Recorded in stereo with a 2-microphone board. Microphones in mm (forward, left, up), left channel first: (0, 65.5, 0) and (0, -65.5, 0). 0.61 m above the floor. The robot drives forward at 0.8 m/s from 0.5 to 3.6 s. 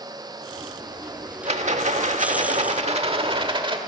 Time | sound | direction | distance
1.4 | a rattle | 60° right (ahead or behind) | 1.3 m